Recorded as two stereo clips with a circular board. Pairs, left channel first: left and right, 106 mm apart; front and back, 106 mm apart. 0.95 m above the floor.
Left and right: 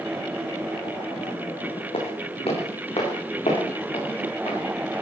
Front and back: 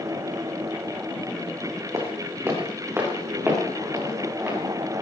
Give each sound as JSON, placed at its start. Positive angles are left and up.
{"t": 1.9, "sound": "footsteps", "azimuth_deg": 120, "distance_m": 3.5}